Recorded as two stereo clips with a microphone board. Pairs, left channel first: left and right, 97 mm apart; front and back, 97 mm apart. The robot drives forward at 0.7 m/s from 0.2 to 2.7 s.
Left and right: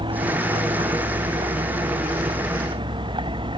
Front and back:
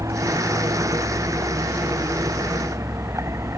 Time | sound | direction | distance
0.0 | a vehicle | 125° right | ?